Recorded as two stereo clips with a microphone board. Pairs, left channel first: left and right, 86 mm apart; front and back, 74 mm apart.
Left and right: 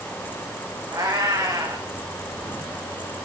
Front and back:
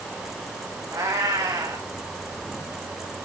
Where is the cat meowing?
140° right, 3 m.